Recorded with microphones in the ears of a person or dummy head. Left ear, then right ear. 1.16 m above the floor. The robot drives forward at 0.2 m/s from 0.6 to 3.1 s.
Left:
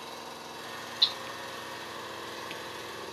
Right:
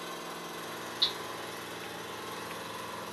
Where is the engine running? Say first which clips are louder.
Right 1 dB; 25° right (ahead or behind), 1.8 m; by 3.1 s 20° right (ahead or behind), 2.5 m.